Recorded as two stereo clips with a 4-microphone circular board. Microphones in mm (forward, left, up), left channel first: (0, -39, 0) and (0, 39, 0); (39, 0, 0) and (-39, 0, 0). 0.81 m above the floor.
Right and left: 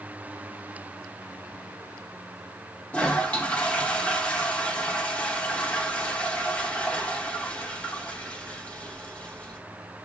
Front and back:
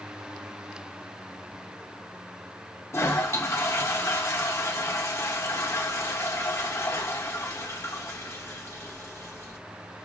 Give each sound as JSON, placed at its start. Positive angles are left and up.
{"t": 2.9, "sound": "a toilet flushing", "azimuth_deg": -25, "distance_m": 0.6}